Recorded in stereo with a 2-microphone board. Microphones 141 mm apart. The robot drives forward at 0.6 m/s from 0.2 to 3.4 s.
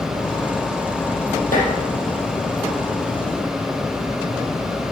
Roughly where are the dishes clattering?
Left.